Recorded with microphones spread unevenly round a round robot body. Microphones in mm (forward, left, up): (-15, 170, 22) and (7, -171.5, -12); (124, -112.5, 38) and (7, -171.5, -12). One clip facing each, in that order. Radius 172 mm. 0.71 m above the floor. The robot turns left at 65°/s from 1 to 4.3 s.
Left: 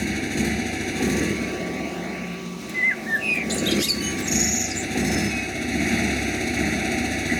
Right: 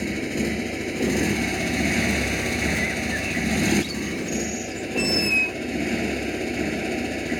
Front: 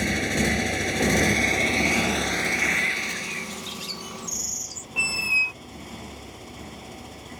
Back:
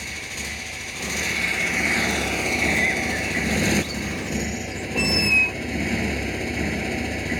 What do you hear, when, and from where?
0.0 s a motorcycle: 15° left; by 7.4 s 160° left
2.7 s a bird: 150° left; by 4.9 s 50° left
5.0 s a squeak: 105° right